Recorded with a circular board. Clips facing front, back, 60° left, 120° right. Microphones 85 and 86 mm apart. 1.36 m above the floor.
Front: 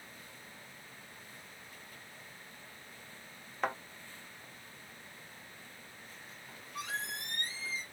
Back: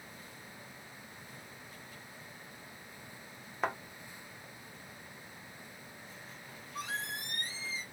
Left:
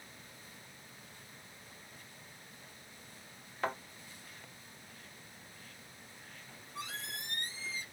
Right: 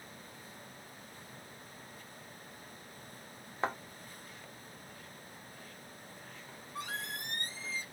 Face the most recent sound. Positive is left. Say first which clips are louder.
# even, right 3 dB
turn(degrees=-95)